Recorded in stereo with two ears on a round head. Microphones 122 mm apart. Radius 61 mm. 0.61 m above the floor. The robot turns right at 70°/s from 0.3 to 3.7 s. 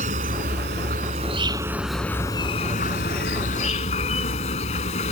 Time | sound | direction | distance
0.0 | an insect | 115° right | ?